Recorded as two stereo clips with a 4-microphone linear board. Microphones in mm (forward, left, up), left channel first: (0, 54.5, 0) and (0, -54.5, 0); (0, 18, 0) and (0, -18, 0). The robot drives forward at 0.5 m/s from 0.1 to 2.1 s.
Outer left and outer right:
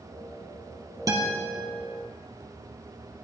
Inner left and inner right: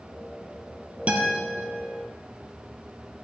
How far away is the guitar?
About 3 m.